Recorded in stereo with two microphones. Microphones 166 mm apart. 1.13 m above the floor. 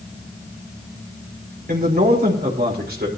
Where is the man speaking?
70° right (ahead or behind), 4 m.